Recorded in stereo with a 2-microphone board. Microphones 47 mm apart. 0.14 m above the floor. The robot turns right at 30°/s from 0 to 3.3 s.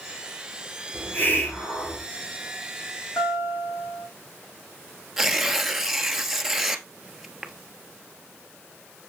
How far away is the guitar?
About 4.5 m.